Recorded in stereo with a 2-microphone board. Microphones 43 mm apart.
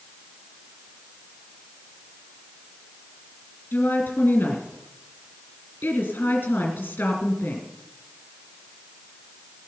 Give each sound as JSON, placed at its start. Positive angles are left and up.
{"t": 3.7, "sound": "a woman speaking", "side_deg": 45, "distance_m": 3.0}